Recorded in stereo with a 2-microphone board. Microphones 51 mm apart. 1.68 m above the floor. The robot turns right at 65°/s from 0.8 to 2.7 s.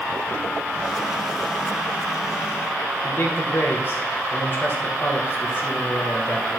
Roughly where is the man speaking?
Left.